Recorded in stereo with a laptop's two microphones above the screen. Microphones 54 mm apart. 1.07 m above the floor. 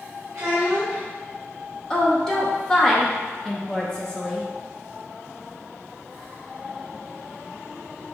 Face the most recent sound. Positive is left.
turn(degrees=10)  # may be behind; listen again after turning